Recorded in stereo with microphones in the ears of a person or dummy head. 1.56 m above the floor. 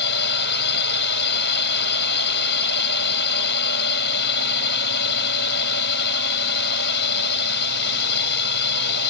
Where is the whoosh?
No whoosh in this recording.